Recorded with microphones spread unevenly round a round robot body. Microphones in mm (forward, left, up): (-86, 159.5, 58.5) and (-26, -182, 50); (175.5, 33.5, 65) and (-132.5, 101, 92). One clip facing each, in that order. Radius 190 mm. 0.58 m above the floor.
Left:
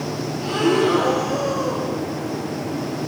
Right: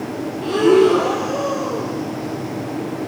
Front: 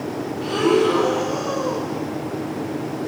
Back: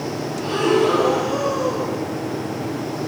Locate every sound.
0.4 s breathing: 55° left, 4 m